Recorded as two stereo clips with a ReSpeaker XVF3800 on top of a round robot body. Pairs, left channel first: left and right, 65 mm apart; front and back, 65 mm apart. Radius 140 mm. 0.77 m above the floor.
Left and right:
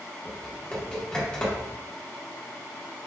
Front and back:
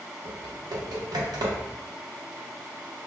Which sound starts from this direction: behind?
Typing on a keyboard, at 0.2 s.